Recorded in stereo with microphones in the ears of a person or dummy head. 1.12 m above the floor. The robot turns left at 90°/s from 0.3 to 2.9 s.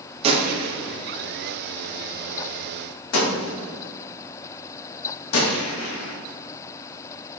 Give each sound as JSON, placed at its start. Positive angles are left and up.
{"t": 0.2, "sound": "a gunshot", "side_deg": -30, "distance_m": 0.7}